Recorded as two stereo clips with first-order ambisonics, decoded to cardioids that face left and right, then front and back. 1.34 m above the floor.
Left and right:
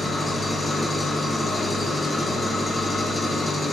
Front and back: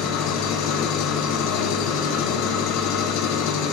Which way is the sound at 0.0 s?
5° left.